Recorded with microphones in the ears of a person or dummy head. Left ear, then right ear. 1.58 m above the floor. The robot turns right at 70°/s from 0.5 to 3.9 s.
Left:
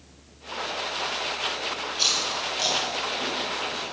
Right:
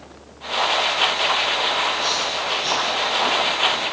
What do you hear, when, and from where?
1.9 s chewing: 85° left, 9 m; by 3.8 s 35° right (ahead or behind), 9 m